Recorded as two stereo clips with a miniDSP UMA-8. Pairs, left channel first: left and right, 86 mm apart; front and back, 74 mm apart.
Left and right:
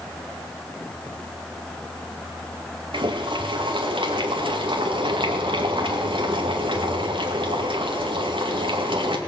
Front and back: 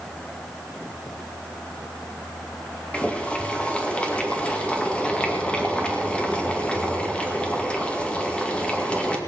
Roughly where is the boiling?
Right.